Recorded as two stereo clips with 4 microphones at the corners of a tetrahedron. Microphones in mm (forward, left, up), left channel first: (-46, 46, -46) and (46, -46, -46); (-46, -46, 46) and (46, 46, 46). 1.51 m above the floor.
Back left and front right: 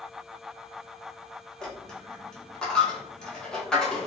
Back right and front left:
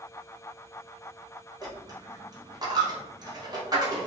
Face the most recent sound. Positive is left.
turn(degrees=55)